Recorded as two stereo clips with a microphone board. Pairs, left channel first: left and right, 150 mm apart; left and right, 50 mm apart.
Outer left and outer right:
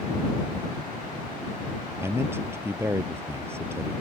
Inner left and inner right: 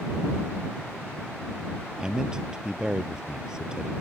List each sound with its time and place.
2.0 s a man speaking: 15° right (ahead or behind)